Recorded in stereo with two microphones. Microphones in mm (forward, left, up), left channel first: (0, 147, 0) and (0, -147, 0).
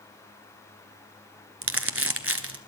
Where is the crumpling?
50° right (ahead or behind), 1.2 m.